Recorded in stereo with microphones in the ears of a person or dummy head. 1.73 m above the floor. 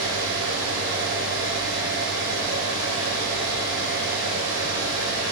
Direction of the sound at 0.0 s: 65° right (ahead or behind).